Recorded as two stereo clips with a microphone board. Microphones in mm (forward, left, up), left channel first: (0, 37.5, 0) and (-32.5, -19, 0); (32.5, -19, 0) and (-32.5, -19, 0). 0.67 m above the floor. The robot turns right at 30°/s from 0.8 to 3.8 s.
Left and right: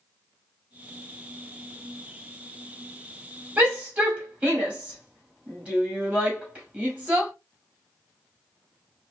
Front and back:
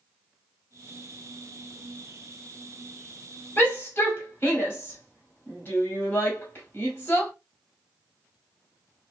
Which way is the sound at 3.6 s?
60° right.